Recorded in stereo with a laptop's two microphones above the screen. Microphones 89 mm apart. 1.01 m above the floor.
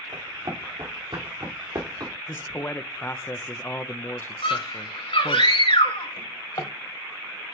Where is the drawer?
55° left (ahead or behind), 1.6 m.